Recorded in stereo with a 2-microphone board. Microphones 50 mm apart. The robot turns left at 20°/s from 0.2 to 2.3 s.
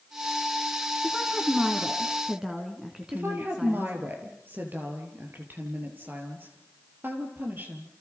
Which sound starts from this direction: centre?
A woman speaking, at 1.0 s.